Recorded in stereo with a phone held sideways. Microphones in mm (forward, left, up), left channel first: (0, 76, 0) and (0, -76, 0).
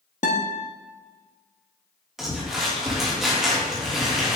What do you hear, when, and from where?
0.2 s a guitar: 55° left (ahead or behind), 1.3 m
2.2 s crumpling: 5° right (ahead or behind), 3 m